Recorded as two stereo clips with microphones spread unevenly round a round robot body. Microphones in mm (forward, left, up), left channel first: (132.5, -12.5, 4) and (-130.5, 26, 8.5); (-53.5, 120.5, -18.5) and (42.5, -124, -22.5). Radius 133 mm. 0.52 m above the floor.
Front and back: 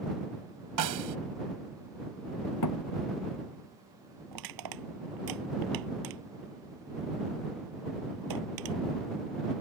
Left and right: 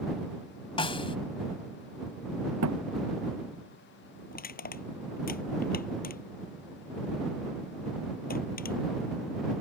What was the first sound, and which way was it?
A snare drum, straight behind.